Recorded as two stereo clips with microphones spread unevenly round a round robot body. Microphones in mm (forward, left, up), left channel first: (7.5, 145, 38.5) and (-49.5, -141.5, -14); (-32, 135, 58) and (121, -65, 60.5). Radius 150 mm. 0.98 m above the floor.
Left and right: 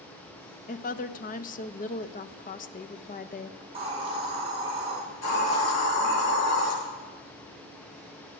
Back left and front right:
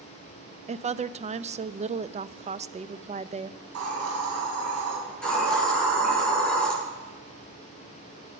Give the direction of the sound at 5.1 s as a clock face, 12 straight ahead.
11 o'clock.